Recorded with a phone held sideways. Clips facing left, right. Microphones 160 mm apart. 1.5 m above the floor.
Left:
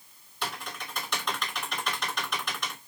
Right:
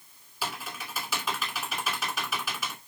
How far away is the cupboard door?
No cupboard door in this recording.